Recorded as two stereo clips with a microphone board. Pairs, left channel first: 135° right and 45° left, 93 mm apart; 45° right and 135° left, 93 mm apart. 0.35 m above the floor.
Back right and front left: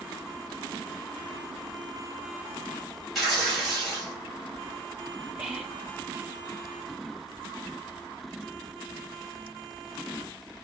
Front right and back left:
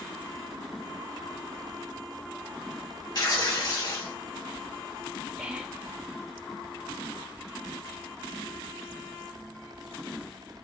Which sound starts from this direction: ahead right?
Tearing paper, at 3.1 s.